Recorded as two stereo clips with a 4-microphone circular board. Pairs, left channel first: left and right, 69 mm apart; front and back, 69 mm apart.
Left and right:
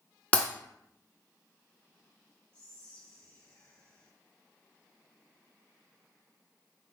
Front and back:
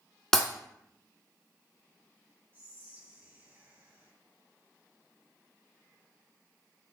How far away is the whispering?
About 1.8 m.